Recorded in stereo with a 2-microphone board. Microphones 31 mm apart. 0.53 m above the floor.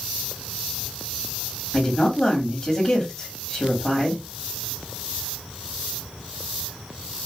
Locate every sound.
1.7 s a woman speaking: 30° left (ahead or behind), 1.4 m